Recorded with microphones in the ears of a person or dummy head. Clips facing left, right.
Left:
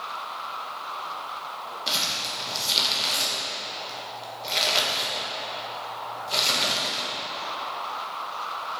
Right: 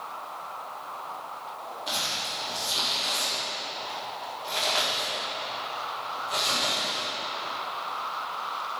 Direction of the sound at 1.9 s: 35° left (ahead or behind).